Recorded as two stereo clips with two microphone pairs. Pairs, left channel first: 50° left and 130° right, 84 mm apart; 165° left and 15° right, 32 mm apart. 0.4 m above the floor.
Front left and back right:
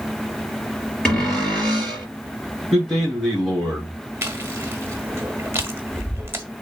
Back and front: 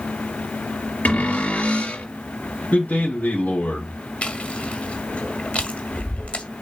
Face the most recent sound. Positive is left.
turn(degrees=-175)